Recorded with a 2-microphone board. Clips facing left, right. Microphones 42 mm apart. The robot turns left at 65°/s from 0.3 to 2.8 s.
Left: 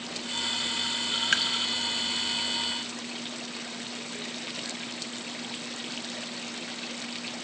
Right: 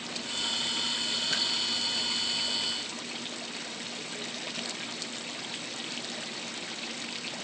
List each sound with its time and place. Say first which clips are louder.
1.3 s dripping: left 8 dB; 60° left (ahead or behind), 0.7 m; by 1.5 s 65° left (ahead or behind), 0.7 m